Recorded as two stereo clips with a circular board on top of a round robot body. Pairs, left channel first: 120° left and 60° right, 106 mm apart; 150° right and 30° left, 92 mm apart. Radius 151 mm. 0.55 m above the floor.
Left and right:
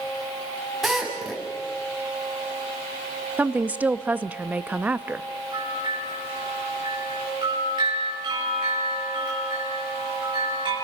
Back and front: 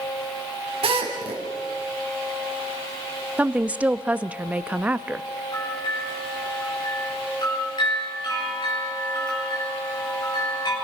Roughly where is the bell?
Right.